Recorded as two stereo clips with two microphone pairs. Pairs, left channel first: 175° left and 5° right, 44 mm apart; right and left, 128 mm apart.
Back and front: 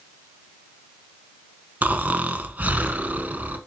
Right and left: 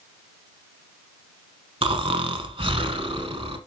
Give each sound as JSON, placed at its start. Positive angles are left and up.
{"t": 1.8, "sound": "snoring", "azimuth_deg": 50, "distance_m": 0.9}